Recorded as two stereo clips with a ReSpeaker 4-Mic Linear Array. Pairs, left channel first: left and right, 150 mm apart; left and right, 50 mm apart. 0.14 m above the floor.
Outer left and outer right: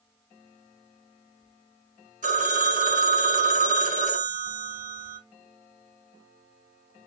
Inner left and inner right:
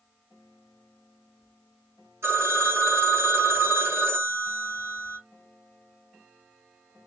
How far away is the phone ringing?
About 1.5 m.